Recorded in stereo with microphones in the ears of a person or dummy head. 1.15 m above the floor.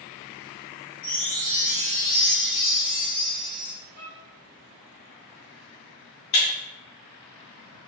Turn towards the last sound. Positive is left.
turn(degrees=50)  # may be behind; listen again after turning